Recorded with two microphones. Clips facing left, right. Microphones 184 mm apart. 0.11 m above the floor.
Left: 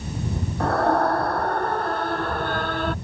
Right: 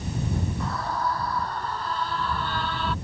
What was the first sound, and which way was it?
A scream, 70° left (ahead or behind).